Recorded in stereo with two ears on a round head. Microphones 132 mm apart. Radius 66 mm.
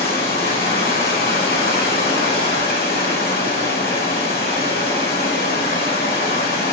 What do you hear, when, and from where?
0.0 s running water: 70° left (ahead or behind), 2 m